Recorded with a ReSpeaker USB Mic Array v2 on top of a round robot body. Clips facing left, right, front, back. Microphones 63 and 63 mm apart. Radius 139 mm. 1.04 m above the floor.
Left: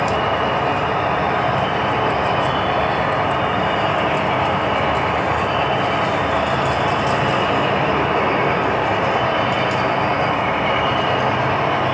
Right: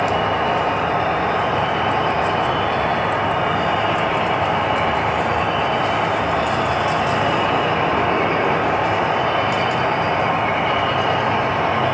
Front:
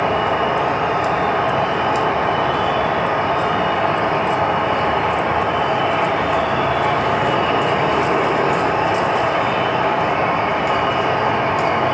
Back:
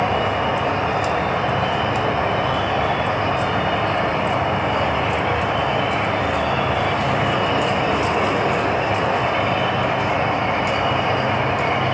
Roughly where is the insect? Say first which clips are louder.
Even, front 2 dB; ahead.